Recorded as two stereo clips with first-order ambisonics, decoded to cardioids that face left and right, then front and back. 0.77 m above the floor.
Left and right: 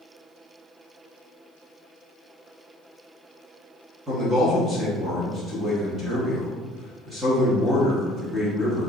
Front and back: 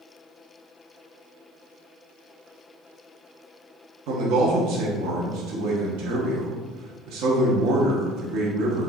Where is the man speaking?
165° right, 1.1 m.